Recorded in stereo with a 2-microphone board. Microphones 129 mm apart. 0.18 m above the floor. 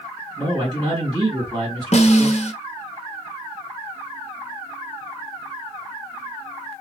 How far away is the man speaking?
About 1.8 m.